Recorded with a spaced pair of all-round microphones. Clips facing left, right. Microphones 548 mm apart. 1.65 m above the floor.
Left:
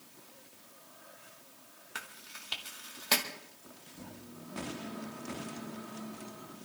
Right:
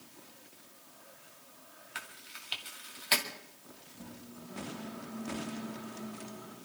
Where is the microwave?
50° left (ahead or behind), 4.5 m.